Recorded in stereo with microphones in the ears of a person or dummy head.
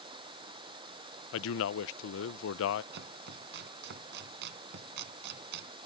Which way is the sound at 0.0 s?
25° right (ahead or behind).